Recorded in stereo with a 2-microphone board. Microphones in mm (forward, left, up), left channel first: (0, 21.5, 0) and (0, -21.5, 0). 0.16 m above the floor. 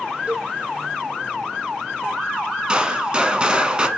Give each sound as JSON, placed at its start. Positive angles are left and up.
{"t": 0.3, "sound": "a cowbell", "side_deg": -35, "distance_m": 1.1}
{"t": 2.7, "sound": "a gunshot", "side_deg": -25, "distance_m": 0.9}